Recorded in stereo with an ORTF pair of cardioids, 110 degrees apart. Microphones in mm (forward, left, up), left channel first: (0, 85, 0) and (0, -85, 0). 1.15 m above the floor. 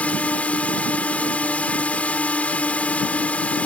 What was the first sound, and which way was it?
A drone, 10° left.